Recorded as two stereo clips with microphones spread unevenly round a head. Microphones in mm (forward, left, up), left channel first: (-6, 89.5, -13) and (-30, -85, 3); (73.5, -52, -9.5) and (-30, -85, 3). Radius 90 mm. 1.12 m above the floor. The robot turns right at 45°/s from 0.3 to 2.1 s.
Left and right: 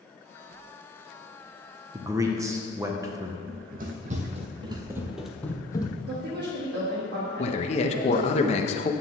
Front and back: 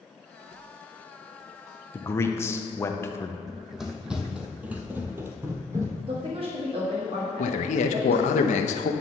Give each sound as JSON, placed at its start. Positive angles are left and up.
{"t": 1.9, "sound": "a man speaking", "azimuth_deg": -30, "distance_m": 0.9}
{"t": 3.5, "sound": "running footsteps", "azimuth_deg": -80, "distance_m": 2.0}
{"t": 6.1, "sound": "a woman speaking", "azimuth_deg": -130, "distance_m": 1.6}
{"t": 7.4, "sound": "a man speaking", "azimuth_deg": 25, "distance_m": 0.7}